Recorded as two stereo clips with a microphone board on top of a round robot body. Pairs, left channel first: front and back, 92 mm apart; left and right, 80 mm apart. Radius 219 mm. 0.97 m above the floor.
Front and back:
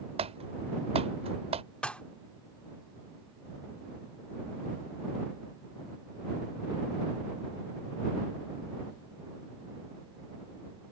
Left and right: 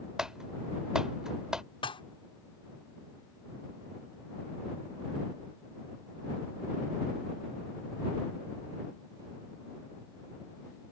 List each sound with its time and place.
0.2 s typing on a keyboard: 175° right
1.8 s dishes clattering: 80° left